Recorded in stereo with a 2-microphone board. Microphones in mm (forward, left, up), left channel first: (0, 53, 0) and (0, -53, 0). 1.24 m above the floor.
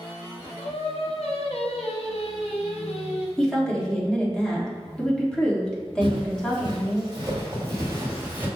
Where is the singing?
70° left (ahead or behind), 0.8 m.